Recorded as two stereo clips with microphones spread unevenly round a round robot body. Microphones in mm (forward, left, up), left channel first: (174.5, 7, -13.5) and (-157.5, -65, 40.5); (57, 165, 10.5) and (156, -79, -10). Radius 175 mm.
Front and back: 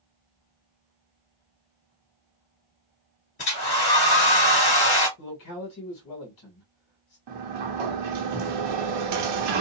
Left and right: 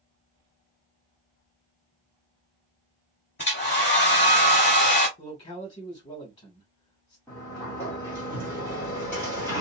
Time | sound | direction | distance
3.4 | a hair dryer | 70° left | 1.9 m
5.2 | a man speaking | 45° left | 1.4 m
7.3 | a sliding door | 165° right | 0.9 m